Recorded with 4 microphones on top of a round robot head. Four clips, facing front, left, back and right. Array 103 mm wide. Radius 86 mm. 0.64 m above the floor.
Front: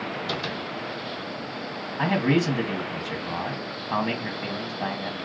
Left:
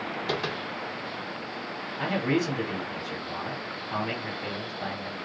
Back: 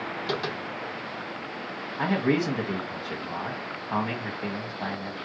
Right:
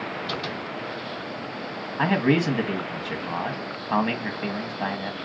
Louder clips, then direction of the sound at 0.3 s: Left 1 dB, back 4 dB; 125° left.